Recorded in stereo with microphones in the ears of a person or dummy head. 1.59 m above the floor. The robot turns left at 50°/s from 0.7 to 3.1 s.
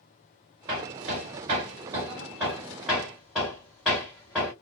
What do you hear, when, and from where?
0.7 s hammering: 20° right (ahead or behind), 1.1 m; by 4.5 s centre (ahead or behind), 1.1 m